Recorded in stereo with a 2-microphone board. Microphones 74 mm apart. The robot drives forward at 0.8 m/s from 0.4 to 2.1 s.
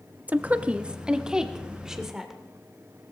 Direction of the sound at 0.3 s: 20° right (ahead or behind).